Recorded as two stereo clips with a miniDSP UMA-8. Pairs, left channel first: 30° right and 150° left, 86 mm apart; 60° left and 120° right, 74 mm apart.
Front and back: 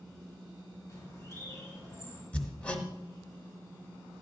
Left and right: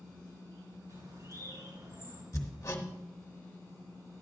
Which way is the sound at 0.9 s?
80° right.